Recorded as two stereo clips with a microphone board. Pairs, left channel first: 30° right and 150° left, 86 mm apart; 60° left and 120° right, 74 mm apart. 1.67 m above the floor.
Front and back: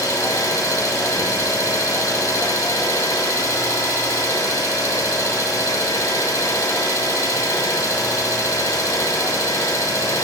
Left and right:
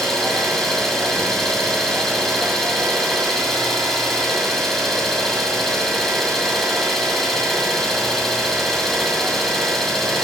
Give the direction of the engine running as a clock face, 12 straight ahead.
1 o'clock.